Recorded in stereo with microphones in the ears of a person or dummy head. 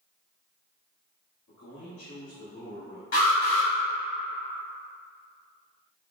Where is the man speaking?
80° left, 1.0 m; by 3.0 s 75° left (ahead or behind), 2.0 m.